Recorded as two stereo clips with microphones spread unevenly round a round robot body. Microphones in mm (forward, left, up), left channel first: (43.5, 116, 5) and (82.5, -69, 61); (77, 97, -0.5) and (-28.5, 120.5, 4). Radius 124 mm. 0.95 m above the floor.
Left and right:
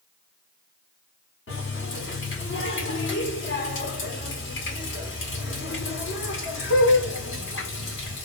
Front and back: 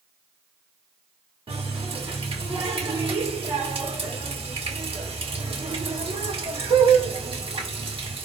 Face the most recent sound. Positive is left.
turn(degrees=135)